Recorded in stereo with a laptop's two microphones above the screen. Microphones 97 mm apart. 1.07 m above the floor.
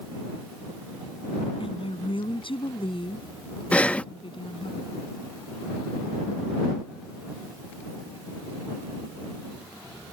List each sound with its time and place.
1.6 s a woman speaking: 60° left (ahead or behind)
3.7 s breathing: 10° left (ahead or behind)